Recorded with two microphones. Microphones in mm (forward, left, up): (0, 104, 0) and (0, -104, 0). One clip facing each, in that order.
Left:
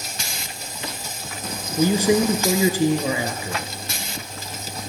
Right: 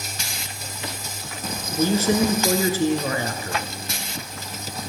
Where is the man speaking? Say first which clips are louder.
Left 2 dB; 15° left (ahead or behind), 1.1 m.